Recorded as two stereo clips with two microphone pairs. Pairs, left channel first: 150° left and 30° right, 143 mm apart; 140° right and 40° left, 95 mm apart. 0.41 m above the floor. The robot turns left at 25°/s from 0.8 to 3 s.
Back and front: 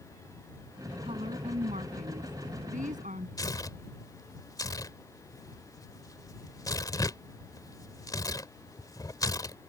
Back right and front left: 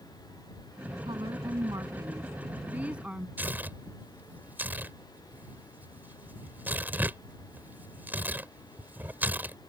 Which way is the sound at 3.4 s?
100° left.